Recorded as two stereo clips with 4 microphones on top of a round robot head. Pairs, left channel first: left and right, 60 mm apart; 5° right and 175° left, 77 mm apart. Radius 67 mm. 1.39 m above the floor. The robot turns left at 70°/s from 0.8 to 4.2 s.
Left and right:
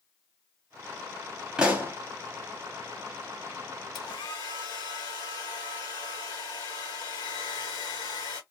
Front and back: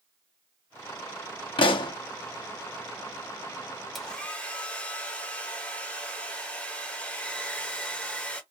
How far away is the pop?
About 0.7 m.